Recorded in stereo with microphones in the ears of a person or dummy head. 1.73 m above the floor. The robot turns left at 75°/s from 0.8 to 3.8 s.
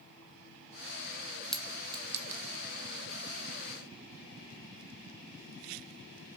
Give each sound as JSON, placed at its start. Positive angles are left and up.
{"t": 1.5, "sound": "a clink", "side_deg": 5, "distance_m": 1.1}